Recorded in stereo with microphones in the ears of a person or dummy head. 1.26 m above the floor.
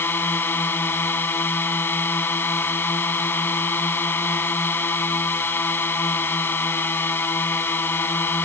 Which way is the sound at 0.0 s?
10° left (ahead or behind).